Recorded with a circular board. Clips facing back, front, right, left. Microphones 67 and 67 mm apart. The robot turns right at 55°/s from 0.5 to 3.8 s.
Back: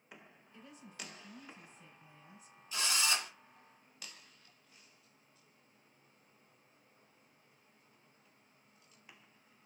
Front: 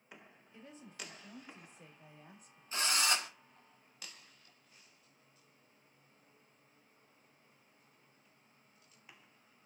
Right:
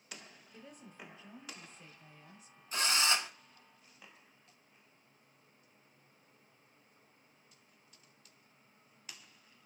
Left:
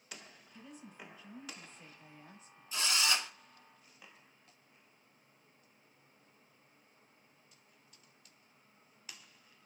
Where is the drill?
50° right, 0.6 m; by 3.3 s 20° right, 0.6 m.